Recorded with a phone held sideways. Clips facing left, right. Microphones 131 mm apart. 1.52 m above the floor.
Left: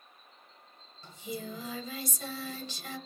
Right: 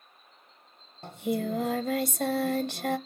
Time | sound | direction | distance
1.0 | singing | 65° right (ahead or behind) | 0.8 m